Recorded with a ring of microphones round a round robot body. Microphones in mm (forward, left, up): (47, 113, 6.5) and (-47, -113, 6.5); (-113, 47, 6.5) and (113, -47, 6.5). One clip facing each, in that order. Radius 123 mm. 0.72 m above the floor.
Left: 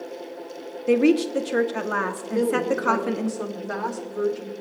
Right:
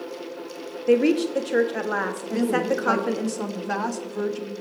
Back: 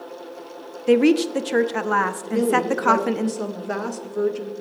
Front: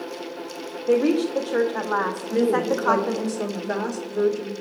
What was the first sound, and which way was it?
A woman speaking, 150° left.